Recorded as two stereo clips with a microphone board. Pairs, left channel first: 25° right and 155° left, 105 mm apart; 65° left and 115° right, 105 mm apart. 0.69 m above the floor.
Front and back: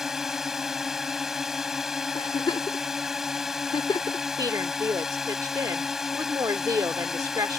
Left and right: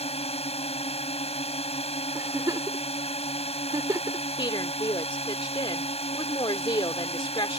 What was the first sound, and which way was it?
A drone, 70° left.